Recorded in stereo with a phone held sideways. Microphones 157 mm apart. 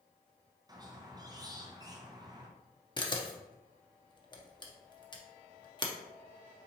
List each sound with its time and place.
0.7 s a squeak: 25° right (ahead or behind), 0.5 m
3.0 s a camera shutter: 30° left (ahead or behind), 0.6 m